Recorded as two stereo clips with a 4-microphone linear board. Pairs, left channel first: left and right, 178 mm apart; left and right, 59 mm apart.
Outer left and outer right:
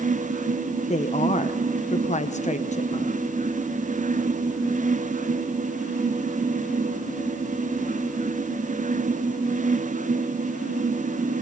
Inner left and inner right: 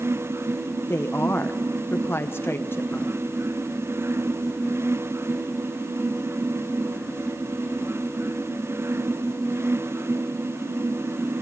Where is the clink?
I don't hear a clink.